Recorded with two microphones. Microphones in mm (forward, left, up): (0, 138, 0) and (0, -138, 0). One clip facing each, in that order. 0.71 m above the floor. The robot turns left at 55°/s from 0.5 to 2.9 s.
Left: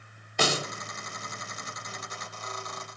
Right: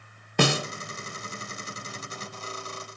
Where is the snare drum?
65° right (ahead or behind), 0.9 m; by 0.7 s 70° right (ahead or behind), 0.9 m.